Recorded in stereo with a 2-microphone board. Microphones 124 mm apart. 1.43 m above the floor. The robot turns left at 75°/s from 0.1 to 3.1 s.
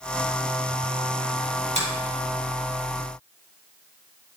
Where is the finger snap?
85° right, 3.5 m.